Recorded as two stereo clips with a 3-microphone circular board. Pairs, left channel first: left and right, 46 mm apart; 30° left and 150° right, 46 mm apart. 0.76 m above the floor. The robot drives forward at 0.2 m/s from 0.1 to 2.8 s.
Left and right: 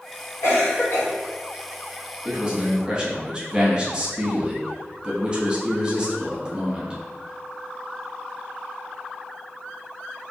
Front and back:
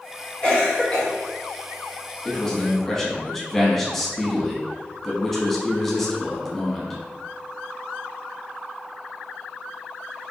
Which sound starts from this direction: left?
A cough, at 0.4 s.